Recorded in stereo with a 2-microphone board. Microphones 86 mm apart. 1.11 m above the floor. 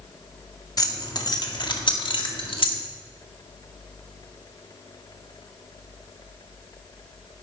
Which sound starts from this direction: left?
Keys jangling, at 0.8 s.